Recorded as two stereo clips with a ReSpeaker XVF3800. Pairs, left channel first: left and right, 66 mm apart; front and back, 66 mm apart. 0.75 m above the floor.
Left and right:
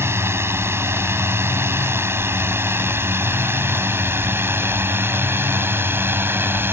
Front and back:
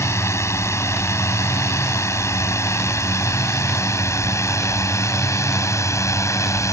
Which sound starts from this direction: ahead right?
A drone, at 0.0 s.